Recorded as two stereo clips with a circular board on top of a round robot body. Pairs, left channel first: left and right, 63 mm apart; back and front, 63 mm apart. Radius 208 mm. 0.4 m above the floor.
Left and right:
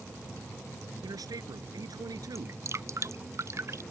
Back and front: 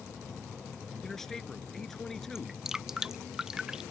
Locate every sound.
1.0 s a man speaking: 95° right
2.4 s dripping: 80° right